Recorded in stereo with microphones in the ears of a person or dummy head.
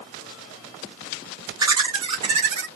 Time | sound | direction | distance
1.6 | laughter | 20° right (ahead or behind) | 1.5 m